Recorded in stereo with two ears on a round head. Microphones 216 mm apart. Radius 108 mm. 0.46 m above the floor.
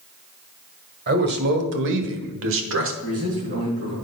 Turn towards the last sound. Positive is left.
turn(degrees=-50)  # may be behind; listen again after turning